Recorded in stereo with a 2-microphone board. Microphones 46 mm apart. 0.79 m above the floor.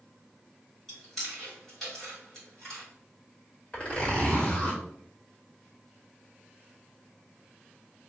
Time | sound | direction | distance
0.9 | chewing | 5° left (ahead or behind) | 1.7 m
3.7 | a zipper | 25° left (ahead or behind) | 1.5 m